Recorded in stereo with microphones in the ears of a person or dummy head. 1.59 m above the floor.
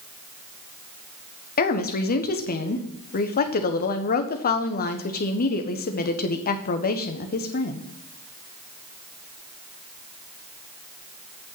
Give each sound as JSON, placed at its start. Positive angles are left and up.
{"t": 1.6, "sound": "a woman speaking", "side_deg": 45, "distance_m": 1.2}